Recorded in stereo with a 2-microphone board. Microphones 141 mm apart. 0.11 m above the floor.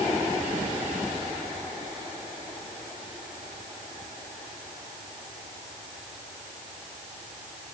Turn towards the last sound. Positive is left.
No sound to turn to.